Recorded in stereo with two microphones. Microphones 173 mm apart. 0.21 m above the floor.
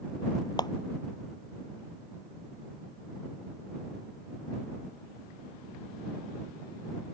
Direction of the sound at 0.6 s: 25° left (ahead or behind).